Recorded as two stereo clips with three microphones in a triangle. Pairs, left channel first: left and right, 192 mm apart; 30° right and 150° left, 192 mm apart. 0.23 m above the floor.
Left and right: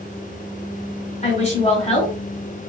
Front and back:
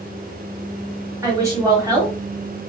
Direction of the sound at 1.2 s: 95° left.